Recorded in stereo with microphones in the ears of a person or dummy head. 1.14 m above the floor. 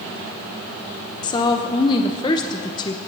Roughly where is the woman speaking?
Left.